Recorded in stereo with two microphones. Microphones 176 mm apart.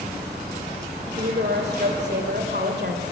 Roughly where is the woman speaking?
Right.